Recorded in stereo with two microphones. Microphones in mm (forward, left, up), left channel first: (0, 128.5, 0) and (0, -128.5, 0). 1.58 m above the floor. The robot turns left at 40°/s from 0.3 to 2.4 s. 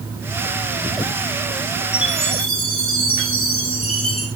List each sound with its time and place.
1.9 s a chime: 40° left (ahead or behind), 6.5 m; by 4.3 s 60° left (ahead or behind), 6.5 m